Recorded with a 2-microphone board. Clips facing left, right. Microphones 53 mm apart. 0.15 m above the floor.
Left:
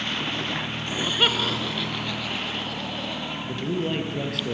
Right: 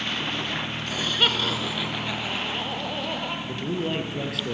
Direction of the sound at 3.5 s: Centre (ahead or behind).